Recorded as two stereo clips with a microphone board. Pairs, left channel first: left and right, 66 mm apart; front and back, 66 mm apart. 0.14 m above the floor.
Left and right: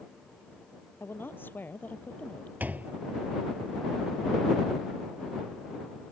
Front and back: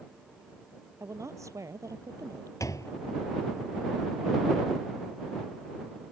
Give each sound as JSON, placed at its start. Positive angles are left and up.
{"t": 1.0, "sound": "a woman speaking", "azimuth_deg": 145}
{"t": 2.6, "sound": "a door slam", "azimuth_deg": -25}